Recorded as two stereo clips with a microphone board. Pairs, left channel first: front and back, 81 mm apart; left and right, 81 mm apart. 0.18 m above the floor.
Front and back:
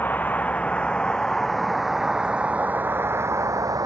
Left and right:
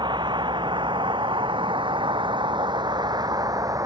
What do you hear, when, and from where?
0.0 s a vehicle: 70° right; by 3.9 s 135° right